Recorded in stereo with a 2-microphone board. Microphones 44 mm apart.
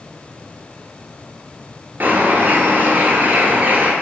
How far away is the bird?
About 0.7 m.